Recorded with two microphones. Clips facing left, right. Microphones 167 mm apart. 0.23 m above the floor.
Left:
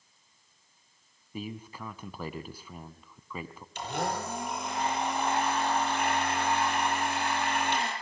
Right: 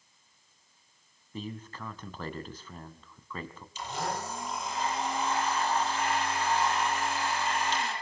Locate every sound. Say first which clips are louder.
1.3 s a man speaking: left 1 dB; 10° left (ahead or behind), 2.0 m
3.8 s a blender: left 2 dB; 65° left (ahead or behind), 7 m